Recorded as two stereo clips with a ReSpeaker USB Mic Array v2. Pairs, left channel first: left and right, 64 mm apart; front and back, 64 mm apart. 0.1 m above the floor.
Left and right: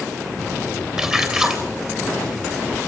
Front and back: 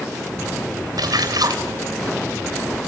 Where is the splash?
165° right, 3 m.